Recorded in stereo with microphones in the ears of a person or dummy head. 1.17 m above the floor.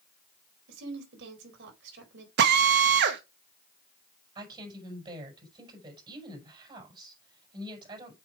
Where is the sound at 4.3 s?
30° right (ahead or behind), 5.5 m.